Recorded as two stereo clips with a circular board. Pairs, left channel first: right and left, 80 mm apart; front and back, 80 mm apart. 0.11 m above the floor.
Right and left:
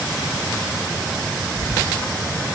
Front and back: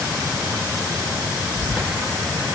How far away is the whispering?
About 1.5 m.